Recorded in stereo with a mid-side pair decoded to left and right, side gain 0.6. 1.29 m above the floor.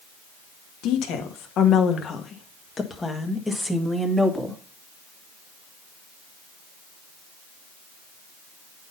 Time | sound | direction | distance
0.8 | a woman speaking | 70° left | 1.6 m